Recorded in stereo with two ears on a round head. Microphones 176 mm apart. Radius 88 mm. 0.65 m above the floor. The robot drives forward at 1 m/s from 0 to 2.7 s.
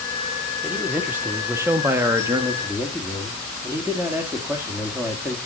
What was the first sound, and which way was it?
A man speaking, 10° right (ahead or behind).